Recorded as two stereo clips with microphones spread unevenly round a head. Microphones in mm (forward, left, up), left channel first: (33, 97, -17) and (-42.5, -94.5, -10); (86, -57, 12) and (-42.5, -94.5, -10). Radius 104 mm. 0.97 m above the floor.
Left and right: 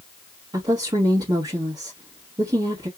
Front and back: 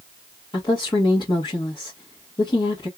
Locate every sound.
0.5 s a woman speaking: 40° right, 1.4 m